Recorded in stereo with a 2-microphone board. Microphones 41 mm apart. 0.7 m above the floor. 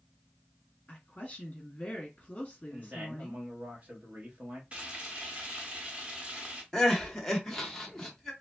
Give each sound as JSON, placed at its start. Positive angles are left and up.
{"t": 0.9, "sound": "a woman speaking", "side_deg": 30, "distance_m": 1.6}
{"t": 2.7, "sound": "a man speaking", "side_deg": -35, "distance_m": 1.4}
{"t": 4.7, "sound": "frying", "side_deg": -30, "distance_m": 1.2}
{"t": 6.7, "sound": "crying", "side_deg": 10, "distance_m": 0.8}